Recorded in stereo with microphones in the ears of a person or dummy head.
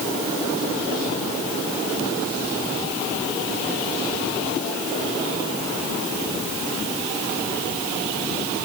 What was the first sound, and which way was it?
Only background noise.